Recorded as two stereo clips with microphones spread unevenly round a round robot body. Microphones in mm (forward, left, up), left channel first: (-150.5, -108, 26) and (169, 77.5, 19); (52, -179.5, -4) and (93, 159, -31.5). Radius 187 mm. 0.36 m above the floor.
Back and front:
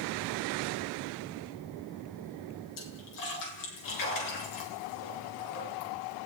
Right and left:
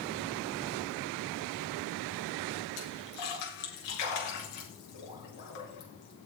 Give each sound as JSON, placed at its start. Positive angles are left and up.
{"t": 2.8, "sound": "a splash", "azimuth_deg": -110, "distance_m": 4.5}